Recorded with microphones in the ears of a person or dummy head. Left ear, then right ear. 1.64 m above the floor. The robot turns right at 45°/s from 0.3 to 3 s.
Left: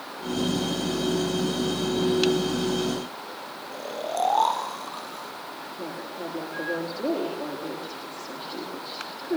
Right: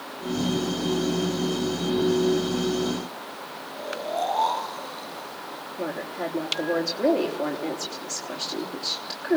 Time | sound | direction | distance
3.7 | snoring | 40° left (ahead or behind) | 3.5 m
5.8 | a woman speaking | 65° right (ahead or behind) | 4 m